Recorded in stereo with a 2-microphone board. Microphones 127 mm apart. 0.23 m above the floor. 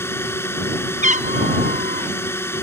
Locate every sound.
0.0 s a drone: 20° left (ahead or behind)
1.0 s a cat meowing: 80° right